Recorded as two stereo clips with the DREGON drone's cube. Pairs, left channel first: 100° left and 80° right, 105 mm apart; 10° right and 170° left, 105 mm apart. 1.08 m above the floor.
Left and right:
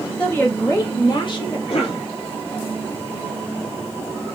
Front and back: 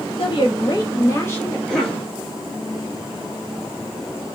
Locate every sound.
0.2 s a woman speaking: 25° left, 1.1 m; by 1.6 s 60° left, 1.5 m
1.7 s a cough: 75° left, 2 m